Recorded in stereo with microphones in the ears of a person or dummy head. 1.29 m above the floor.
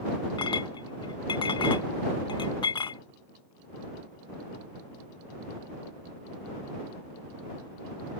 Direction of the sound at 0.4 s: 30° left (ahead or behind).